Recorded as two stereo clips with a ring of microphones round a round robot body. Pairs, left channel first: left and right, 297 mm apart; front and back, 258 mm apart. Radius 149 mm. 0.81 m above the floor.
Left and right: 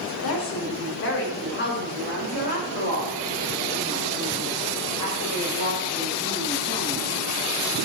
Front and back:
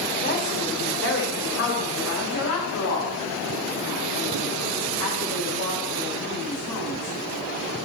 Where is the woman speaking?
50° left, 3 m; by 7.2 s 15° left, 8 m.